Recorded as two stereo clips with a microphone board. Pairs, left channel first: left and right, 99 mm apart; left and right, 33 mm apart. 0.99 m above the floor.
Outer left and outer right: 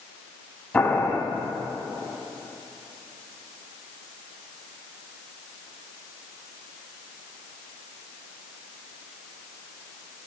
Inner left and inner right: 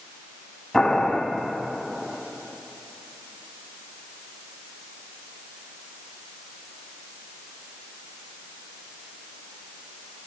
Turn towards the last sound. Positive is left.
turn(degrees=15)  # may be behind; listen again after turning